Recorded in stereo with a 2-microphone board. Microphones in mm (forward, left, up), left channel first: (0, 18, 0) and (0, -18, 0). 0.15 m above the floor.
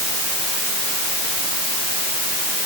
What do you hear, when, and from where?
Only background noise.